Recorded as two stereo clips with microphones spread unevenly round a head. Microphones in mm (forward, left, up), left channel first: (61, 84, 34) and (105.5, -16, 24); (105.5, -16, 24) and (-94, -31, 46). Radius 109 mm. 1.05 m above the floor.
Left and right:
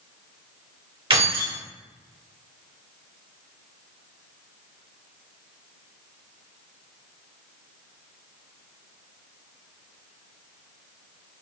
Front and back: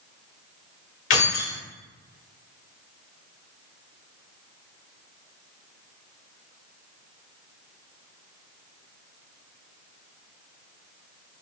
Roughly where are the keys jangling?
Ahead right.